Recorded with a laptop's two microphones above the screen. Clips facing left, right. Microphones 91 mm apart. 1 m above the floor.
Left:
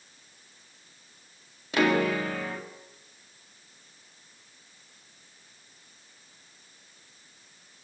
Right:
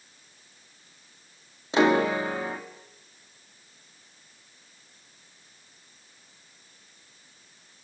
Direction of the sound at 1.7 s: 25° right (ahead or behind).